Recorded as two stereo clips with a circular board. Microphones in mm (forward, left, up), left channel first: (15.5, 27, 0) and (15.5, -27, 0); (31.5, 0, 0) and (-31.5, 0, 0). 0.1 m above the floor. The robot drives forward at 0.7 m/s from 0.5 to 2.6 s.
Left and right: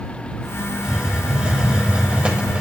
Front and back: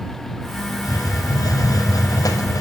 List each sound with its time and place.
0.8 s a hiss: 15° right, 6 m; by 2.6 s 20° right, 5 m